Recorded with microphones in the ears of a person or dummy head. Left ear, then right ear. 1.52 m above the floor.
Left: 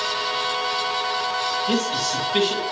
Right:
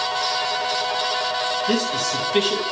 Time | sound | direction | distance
1.7 | a man speaking | 5° right (ahead or behind) | 3 m